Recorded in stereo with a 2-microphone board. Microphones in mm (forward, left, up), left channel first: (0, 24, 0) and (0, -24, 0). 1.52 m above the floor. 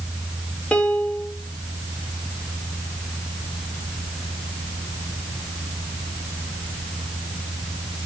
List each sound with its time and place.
0.7 s a piano: 20° left (ahead or behind), 3 m